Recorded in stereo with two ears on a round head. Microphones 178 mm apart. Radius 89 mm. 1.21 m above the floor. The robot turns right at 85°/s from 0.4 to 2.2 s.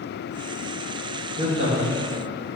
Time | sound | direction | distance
1.4 | a man speaking | 160° right | 3.5 m